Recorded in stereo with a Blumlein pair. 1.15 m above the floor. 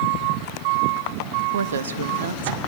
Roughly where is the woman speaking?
Right.